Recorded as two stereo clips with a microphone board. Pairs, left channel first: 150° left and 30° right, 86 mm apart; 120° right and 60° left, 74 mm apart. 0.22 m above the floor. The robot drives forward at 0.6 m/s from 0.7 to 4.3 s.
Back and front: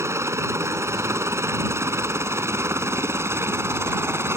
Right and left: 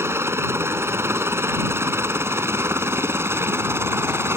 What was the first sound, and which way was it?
A helicopter, 15° left.